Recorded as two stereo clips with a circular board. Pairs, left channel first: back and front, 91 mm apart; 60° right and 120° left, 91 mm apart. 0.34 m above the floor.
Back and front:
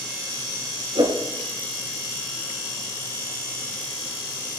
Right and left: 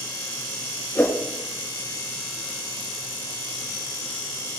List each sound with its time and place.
0.9 s a whoosh: 10° left, 3 m